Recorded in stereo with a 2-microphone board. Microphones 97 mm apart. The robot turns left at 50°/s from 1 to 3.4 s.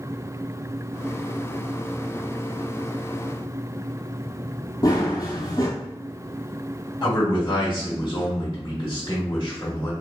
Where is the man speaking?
35° left (ahead or behind), 1.5 m.